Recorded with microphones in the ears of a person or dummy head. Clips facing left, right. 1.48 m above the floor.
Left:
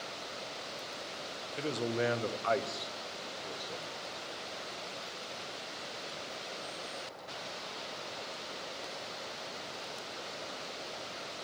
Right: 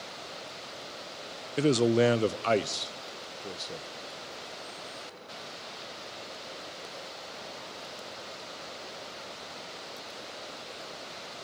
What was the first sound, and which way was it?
A man speaking, 60° right (ahead or behind).